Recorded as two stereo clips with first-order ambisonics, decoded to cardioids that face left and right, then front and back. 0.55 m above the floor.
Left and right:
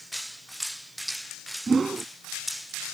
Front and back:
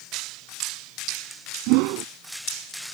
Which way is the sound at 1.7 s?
165° right.